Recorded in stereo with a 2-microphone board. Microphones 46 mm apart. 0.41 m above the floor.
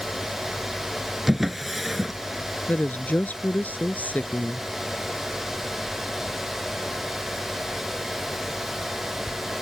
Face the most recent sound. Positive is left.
turn(degrees=35)  # may be behind; listen again after turning